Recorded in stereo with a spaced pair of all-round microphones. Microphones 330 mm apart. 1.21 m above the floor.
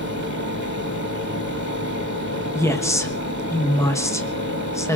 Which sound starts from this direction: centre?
A woman speaking, at 2.5 s.